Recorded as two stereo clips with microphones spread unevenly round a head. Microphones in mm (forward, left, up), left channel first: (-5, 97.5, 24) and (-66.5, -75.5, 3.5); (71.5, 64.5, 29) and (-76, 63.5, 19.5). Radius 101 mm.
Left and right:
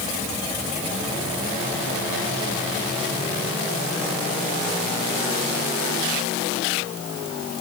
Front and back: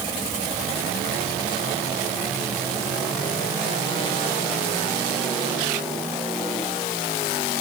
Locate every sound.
Only background noise.